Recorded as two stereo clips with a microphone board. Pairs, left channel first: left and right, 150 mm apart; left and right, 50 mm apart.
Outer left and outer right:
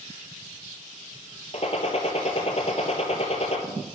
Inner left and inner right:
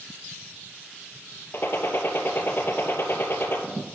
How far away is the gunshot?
About 1.4 m.